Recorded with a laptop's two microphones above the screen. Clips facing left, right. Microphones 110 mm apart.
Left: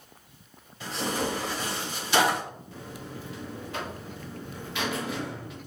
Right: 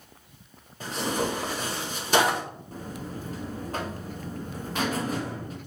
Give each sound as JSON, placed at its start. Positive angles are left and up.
{"t": 0.8, "sound": "tearing paper", "side_deg": -45, "distance_m": 4.0}
{"t": 2.7, "sound": "a buzzer", "side_deg": -40, "distance_m": 1.2}